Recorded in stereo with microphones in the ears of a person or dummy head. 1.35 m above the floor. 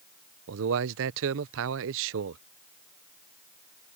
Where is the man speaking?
70° right (ahead or behind).